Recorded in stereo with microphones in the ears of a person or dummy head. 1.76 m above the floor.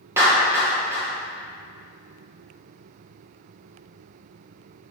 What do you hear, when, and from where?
0.2 s a clap: 15° right (ahead or behind), 1.8 m